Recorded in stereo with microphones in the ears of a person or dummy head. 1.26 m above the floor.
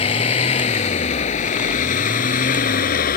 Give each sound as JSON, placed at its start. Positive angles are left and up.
{"t": 0.0, "sound": "a vehicle", "side_deg": 35}